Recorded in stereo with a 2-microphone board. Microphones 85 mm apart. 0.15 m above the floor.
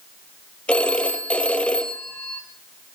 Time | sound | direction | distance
0.7 | a phone ringing | 15° left (ahead or behind) | 2.5 m